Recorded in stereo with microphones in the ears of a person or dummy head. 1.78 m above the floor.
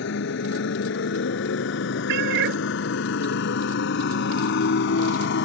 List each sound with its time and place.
0.0 s a motorcycle: 70° left (ahead or behind); by 5.5 s 65° left (ahead or behind)
2.1 s a cat meowing: 60° right (ahead or behind)